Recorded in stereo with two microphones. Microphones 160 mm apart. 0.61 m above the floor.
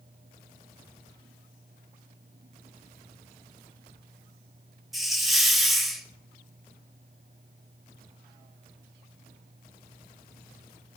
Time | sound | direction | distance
4.9 | a hiss | centre (ahead or behind) | 1.6 m